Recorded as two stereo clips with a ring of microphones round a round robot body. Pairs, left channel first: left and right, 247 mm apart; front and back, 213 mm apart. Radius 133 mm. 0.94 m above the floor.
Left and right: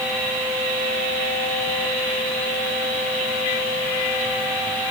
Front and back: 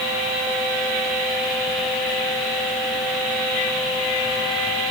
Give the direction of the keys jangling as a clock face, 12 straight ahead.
No keys jangling in this recording.